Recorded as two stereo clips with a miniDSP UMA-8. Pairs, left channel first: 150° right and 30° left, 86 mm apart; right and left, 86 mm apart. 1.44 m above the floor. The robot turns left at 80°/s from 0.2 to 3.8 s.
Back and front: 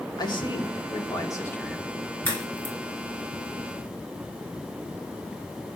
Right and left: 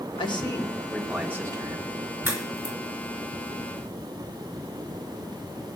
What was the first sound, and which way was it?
A man speaking, 110° right.